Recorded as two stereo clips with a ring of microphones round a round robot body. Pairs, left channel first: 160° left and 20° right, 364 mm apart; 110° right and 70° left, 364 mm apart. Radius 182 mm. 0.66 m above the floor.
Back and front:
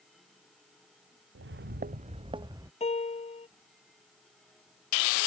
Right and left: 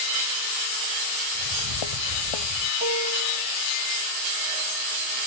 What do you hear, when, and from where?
1.4 s footsteps: 80° right; by 2.7 s 105° right
2.8 s a piano: 85° left